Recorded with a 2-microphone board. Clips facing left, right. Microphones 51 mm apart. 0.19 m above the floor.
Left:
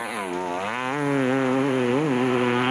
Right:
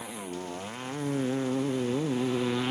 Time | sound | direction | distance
0.0 | a motorcycle | 80° left | ?